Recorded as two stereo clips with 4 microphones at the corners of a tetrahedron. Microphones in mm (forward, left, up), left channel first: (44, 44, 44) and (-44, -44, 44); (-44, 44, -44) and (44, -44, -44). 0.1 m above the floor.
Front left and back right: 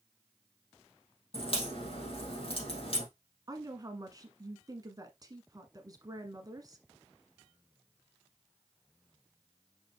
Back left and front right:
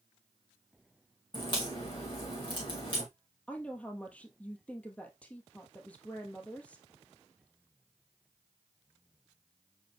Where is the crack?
85° left, 4 m.